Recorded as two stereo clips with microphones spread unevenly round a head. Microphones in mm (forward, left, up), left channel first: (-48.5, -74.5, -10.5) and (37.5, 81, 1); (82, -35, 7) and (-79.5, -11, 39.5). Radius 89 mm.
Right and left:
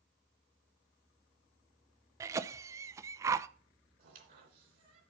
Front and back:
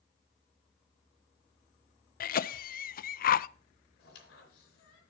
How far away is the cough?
About 0.5 m.